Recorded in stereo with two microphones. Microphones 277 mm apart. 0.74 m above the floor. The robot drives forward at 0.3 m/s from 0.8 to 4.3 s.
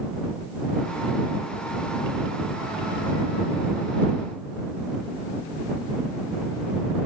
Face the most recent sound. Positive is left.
No sound to turn to.